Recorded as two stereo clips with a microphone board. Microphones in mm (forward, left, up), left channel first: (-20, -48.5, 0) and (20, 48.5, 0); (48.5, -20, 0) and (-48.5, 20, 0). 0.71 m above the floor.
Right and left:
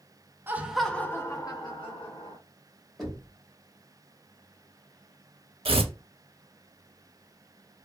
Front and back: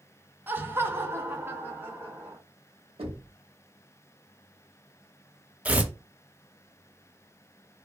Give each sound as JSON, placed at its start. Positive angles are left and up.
{"t": 0.5, "sound": "laughter", "azimuth_deg": 110, "distance_m": 0.6}
{"t": 3.0, "sound": "knocking", "azimuth_deg": 155, "distance_m": 0.9}
{"t": 5.7, "sound": "tearing paper", "azimuth_deg": 80, "distance_m": 0.5}